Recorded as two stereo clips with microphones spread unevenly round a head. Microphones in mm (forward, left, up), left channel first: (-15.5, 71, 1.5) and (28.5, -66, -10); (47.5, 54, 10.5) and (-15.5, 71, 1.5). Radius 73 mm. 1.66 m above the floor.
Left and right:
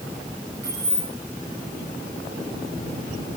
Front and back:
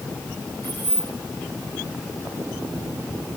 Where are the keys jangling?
145° right, 7 m.